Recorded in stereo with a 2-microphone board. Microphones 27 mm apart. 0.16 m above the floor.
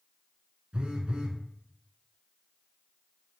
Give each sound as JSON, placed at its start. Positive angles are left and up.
{"t": 0.7, "sound": "a phone buzzing", "side_deg": -45, "distance_m": 0.7}